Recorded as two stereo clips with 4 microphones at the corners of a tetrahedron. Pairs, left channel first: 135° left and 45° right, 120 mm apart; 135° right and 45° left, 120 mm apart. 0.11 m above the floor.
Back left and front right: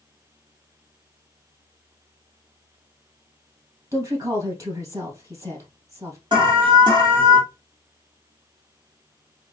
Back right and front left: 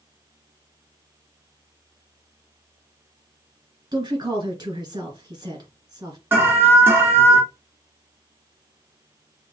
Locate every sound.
3.9 s a woman speaking: 5° left, 2 m
6.3 s an alarm: 20° right, 1.9 m